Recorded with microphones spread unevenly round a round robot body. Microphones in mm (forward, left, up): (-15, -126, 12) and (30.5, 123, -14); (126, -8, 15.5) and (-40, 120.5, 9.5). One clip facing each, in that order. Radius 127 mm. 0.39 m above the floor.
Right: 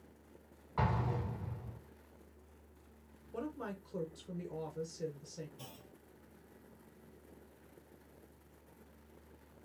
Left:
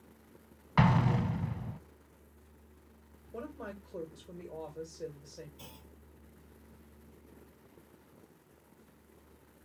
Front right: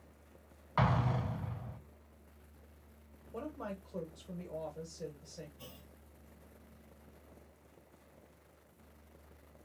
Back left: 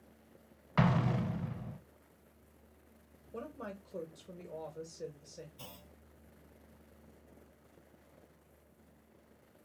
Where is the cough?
I don't hear a cough.